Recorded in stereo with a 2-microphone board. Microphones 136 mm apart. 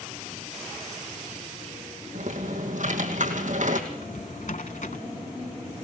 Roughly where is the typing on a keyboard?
Right.